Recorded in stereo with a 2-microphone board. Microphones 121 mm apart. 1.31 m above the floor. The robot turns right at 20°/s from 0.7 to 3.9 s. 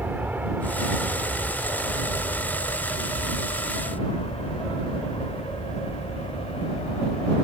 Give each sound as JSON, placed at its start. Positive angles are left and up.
{"t": 0.0, "sound": "an aircraft", "side_deg": -15}